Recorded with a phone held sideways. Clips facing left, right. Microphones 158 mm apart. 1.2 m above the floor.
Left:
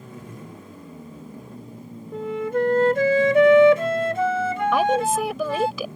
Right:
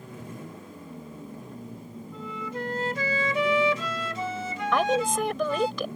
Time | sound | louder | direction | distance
2.1 | a flute | left 12 dB | 55° left (ahead or behind) | ?
4.7 | a woman speaking | left 2 dB | 5° left (ahead or behind) | ?